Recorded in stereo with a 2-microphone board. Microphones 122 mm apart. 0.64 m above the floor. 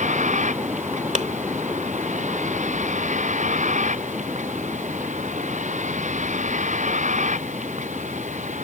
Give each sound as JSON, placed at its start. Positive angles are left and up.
{"t": 0.0, "sound": "a vehicle", "side_deg": -70}
{"t": 1.1, "sound": "a clap", "side_deg": -65}